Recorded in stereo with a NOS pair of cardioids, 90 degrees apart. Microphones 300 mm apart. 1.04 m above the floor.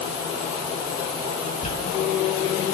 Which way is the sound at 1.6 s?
25° left.